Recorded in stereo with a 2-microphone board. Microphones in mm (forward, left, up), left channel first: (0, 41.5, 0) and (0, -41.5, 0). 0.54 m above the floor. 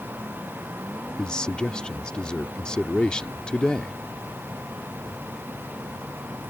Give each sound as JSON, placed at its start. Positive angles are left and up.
{"t": 1.2, "sound": "a man speaking", "side_deg": 10}